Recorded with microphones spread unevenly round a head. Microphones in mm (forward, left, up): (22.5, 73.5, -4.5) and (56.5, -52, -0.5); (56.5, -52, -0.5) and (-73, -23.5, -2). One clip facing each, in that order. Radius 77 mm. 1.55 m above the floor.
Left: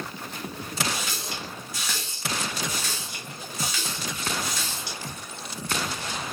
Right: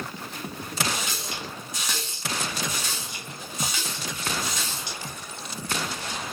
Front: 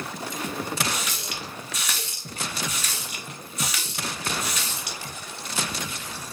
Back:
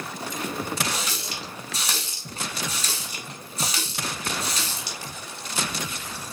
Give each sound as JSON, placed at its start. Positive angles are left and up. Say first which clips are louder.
{"t": 0.9, "sound": "a running tap", "louder": "right 1 dB, back 1 dB", "azimuth_deg": -140, "distance_m": 0.8}